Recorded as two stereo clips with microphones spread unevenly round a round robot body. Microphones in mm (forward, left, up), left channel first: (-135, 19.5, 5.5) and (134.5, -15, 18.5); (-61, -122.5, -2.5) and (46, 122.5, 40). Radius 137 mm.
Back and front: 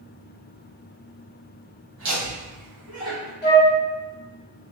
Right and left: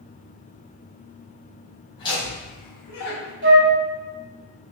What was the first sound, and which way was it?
Laughter, 45° right.